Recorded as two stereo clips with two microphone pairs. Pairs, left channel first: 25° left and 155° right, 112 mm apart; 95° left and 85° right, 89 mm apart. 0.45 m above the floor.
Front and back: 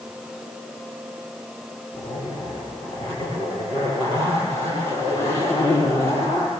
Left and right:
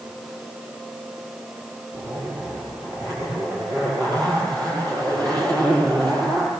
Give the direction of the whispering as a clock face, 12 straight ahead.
No whispering in this recording.